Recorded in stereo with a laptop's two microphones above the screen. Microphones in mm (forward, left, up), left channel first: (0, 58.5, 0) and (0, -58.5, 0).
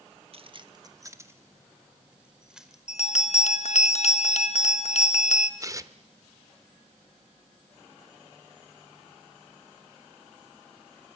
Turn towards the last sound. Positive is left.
turn(degrees=-25)  # may be behind; listen again after turning